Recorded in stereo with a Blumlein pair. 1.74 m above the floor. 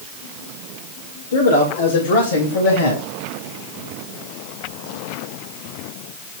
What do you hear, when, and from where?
1.3 s a man speaking: 65° left, 3 m; by 3.0 s 70° left, 3.5 m